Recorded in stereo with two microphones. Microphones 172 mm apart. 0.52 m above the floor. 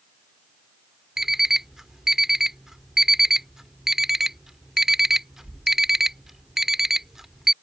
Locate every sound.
1.2 s an alarm clock: 5° right (ahead or behind)